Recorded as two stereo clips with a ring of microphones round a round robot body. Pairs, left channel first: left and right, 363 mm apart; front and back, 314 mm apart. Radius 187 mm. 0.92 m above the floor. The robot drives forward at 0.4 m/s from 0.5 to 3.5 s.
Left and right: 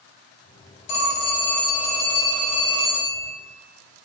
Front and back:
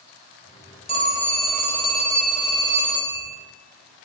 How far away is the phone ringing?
About 0.8 m.